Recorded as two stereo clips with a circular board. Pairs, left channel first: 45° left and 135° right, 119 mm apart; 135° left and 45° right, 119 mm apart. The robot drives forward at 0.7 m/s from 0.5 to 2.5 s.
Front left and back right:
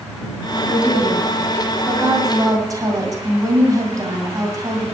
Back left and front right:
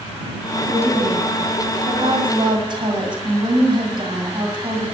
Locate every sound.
0.7 s a woman speaking: 50° right, 3 m; by 4.8 s 80° right, 2.5 m